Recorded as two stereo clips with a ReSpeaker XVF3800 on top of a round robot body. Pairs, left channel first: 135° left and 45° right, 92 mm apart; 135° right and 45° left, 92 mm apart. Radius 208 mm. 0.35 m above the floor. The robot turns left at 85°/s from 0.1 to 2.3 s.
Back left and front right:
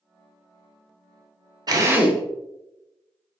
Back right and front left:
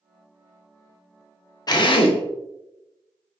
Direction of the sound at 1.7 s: 90° right.